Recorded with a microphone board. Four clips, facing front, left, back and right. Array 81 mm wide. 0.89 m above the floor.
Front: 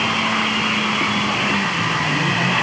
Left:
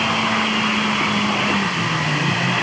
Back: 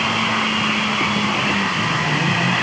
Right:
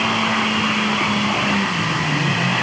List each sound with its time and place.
Only background noise.